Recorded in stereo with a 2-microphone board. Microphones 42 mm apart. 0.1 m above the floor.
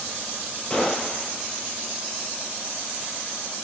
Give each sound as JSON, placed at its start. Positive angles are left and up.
{"t": 0.7, "sound": "a gunshot", "side_deg": 20, "distance_m": 1.2}